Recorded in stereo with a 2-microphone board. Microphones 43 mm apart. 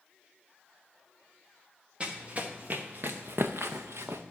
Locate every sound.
2.0 s running footsteps: 30° right (ahead or behind), 1.2 m; by 4.2 s 75° right (ahead or behind), 0.8 m